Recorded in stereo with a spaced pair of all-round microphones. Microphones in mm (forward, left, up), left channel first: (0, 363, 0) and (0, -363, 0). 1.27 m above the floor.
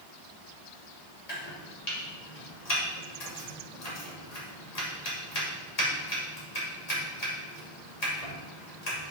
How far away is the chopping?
About 2.5 m.